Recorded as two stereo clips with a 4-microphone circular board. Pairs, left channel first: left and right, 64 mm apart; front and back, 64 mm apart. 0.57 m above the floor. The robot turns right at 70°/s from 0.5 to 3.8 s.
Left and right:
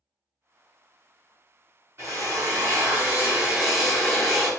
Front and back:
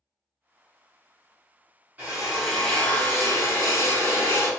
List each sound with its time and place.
2.0 s a drill: 125° right, 1.8 m; by 4.5 s 5° left, 1.8 m